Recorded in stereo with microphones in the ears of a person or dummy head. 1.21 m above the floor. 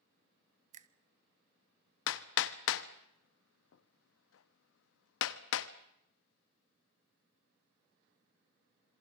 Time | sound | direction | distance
0.7 | a finger snap | 40° right (ahead or behind) | 0.8 m
2.1 | hammering | 75° left (ahead or behind) | 1.1 m